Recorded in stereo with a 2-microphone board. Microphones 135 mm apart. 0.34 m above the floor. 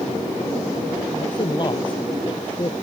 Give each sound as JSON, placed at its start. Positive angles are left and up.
{"t": 1.1, "sound": "a man speaking", "side_deg": 35}